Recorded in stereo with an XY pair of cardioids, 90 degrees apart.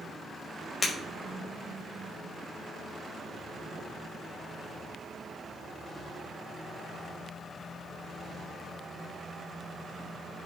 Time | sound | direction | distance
0.8 | breaking glass | 45° left | 4 m